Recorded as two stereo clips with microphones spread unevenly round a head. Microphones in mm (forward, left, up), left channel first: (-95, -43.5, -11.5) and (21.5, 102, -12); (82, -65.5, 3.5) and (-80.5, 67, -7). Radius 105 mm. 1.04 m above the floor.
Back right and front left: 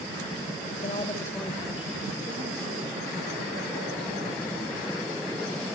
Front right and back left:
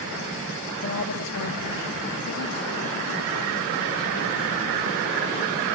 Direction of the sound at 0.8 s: 70° right.